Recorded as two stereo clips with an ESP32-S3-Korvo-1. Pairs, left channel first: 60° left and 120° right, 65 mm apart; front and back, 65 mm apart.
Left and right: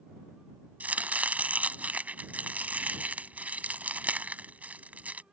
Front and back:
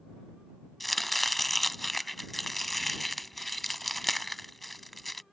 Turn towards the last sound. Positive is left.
turn(degrees=-85)